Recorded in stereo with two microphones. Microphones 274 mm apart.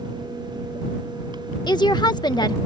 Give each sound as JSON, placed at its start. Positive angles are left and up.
{"t": 1.7, "sound": "a woman speaking", "side_deg": 15}